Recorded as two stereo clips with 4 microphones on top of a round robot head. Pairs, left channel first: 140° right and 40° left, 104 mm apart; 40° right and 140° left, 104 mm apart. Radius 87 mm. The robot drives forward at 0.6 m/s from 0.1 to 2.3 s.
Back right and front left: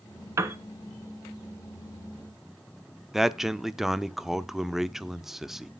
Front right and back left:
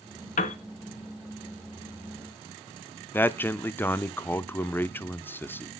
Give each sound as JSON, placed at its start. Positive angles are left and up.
{"t": 0.4, "sound": "a piano", "azimuth_deg": -30, "distance_m": 0.7}
{"t": 3.1, "sound": "a man speaking", "azimuth_deg": -45, "distance_m": 0.7}